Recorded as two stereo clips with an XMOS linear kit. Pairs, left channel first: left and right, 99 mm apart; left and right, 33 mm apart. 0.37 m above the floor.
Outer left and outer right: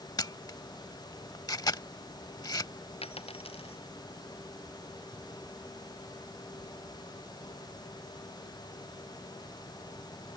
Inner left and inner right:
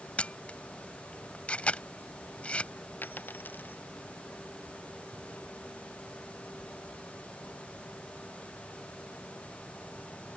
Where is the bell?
No bell in this recording.